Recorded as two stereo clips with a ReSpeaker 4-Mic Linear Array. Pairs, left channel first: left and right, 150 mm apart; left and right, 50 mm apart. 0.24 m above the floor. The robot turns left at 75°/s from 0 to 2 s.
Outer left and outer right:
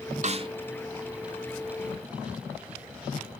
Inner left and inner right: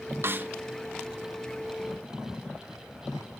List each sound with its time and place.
0.2 s a snare drum: 55° right (ahead or behind), 0.5 m; by 0.5 s 35° right (ahead or behind), 0.5 m